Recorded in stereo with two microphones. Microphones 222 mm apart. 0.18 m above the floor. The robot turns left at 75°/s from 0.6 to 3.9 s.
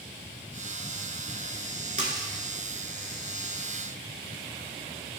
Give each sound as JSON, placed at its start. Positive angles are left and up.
{"t": 2.0, "sound": "a splash", "side_deg": -35, "distance_m": 0.7}